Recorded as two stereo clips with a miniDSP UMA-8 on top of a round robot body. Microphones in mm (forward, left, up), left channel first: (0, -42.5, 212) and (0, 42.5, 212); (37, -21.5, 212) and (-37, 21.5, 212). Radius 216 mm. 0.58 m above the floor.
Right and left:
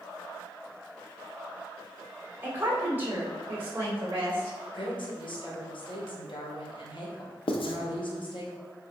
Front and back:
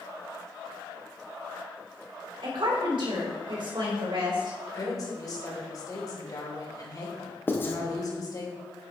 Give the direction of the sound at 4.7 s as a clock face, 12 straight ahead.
2 o'clock.